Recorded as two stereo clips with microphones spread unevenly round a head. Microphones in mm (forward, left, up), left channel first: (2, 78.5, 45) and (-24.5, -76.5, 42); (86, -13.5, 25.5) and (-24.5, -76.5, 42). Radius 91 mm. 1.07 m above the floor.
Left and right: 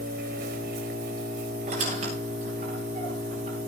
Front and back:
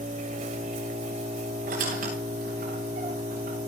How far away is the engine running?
About 4 m.